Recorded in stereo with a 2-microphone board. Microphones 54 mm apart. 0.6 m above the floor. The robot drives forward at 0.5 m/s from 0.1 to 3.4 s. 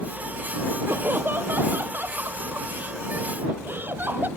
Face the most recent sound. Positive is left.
turn(degrees=-40)  # may be behind; listen again after turning